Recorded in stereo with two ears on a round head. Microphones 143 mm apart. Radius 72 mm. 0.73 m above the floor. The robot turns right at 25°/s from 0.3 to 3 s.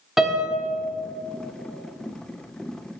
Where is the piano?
Centre (ahead or behind), 0.9 m; by 0.6 s 10° right (ahead or behind), 0.9 m.